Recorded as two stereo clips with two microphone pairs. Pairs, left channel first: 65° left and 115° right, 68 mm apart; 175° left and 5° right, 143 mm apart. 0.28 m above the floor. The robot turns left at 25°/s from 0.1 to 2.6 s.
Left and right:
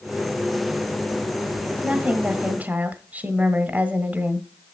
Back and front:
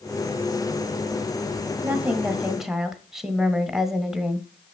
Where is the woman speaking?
70° right, 1.2 m; by 4.5 s 90° right, 1.2 m.